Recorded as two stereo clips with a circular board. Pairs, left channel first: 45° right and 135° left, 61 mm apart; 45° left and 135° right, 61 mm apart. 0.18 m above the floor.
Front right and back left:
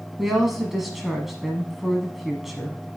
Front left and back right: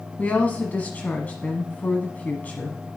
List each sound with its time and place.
0.2 s a woman speaking: 50° left, 1.1 m